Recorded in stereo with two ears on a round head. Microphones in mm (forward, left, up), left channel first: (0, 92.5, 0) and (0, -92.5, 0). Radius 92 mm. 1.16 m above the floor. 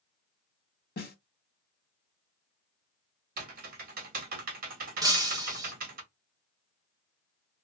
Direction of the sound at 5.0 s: 20° right (ahead or behind).